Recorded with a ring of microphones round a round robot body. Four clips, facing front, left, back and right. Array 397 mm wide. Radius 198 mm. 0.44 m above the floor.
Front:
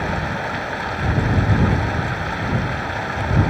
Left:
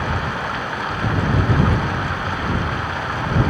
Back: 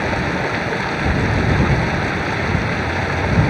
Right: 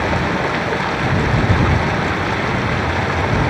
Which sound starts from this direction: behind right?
Running water, at 0.0 s.